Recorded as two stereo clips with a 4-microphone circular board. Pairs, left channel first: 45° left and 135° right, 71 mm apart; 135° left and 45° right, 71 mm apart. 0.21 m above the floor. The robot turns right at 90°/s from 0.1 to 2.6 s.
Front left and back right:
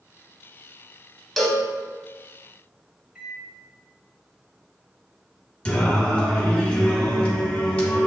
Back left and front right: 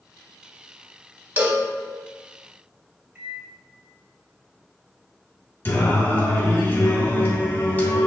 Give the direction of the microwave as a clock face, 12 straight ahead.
2 o'clock.